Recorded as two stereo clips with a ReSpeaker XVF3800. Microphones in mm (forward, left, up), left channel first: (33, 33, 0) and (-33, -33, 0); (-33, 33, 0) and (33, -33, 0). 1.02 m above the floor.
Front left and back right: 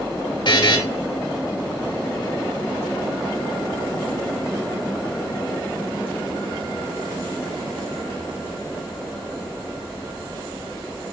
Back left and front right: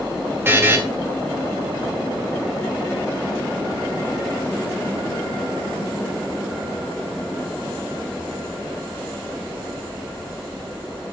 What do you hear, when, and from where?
0.5 s a buzzer: 20° left, 2 m